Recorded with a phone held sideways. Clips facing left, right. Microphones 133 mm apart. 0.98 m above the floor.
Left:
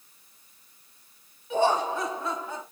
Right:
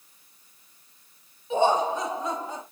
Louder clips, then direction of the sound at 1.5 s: Right 2 dB; 20° right (ahead or behind).